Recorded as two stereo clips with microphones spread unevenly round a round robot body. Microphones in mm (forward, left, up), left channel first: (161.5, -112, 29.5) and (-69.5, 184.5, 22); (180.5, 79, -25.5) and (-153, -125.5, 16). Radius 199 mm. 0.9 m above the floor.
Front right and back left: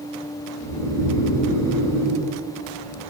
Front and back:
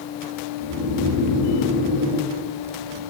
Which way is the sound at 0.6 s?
90° left.